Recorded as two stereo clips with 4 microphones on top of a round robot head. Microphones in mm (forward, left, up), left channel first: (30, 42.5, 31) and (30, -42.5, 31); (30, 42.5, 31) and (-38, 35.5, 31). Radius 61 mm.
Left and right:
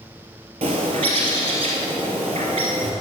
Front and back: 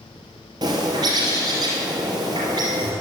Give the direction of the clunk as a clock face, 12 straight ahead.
I don't hear a clunk.